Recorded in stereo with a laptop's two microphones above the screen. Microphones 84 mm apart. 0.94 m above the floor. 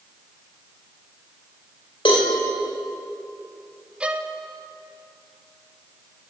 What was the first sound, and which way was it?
A cowbell, 85° left.